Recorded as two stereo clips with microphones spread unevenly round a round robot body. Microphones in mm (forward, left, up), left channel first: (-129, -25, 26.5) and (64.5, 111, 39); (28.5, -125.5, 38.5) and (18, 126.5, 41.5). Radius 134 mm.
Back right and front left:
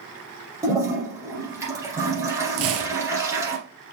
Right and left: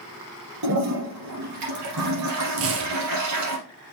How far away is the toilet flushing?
About 3 m.